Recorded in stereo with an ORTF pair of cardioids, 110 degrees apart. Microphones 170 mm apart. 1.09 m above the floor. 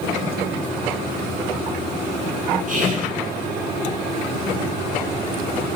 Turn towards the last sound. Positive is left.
turn(degrees=-50)